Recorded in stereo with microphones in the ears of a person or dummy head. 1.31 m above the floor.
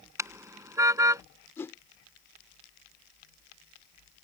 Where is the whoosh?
15° left (ahead or behind).